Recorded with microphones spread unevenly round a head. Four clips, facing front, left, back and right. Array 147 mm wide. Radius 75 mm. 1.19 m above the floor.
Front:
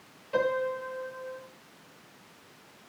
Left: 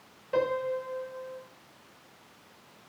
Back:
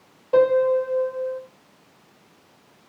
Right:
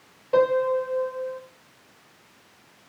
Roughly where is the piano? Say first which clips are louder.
Right 8 dB, back 11 dB; behind right.